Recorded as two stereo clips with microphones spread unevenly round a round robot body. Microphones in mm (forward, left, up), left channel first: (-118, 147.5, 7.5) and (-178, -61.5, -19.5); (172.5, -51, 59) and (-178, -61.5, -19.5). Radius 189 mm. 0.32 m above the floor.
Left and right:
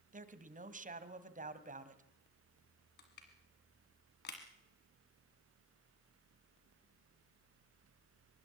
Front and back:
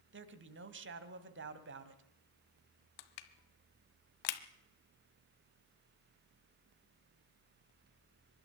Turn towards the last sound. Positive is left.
turn(degrees=10)